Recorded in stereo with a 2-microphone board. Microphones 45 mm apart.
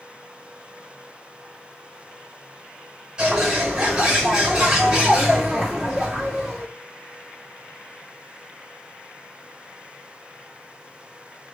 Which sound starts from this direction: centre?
A bird, at 3.2 s.